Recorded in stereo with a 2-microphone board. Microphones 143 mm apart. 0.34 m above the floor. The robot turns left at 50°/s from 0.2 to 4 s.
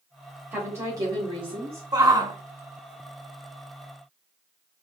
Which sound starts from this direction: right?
A shout, at 1.9 s.